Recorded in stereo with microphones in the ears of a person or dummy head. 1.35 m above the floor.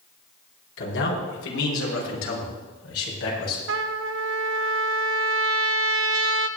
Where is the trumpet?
80° right, 0.9 m.